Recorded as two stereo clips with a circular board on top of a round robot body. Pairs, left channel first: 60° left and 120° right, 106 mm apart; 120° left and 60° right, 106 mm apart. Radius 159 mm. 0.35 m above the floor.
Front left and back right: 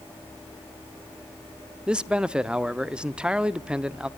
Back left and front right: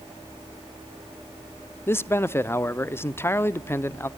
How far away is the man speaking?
About 0.9 m.